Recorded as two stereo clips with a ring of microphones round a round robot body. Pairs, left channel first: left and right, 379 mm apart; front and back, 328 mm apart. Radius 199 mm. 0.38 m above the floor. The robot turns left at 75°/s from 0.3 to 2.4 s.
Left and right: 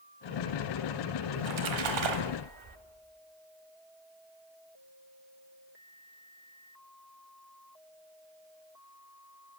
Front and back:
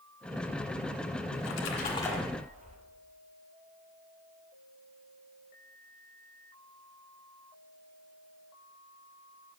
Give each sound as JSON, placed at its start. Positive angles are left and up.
{"t": 1.3, "sound": "a splash", "azimuth_deg": -30, "distance_m": 1.1}